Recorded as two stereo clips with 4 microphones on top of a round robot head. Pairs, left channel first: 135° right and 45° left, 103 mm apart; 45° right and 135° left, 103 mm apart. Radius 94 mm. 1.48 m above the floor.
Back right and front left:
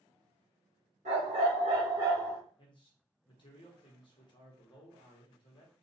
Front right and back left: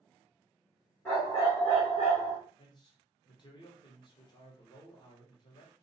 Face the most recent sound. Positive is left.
turn(degrees=-95)